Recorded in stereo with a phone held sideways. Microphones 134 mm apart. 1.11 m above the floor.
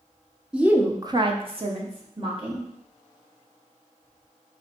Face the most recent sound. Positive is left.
turn(degrees=-40)  # may be behind; listen again after turning